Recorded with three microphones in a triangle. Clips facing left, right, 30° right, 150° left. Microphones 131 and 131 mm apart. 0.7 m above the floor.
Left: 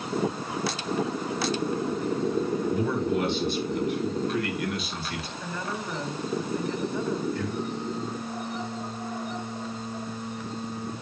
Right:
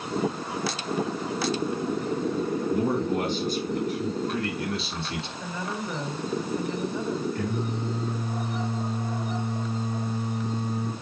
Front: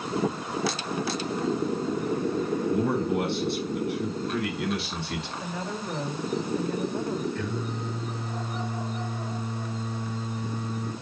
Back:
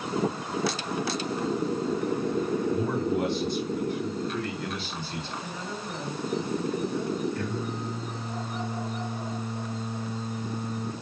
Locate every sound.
2.7 s a man speaking: 50° right, 7 m; by 5.3 s 25° right, 5 m
5.4 s a woman speaking: 15° right, 4.5 m
7.3 s singing: 130° right, 7.5 m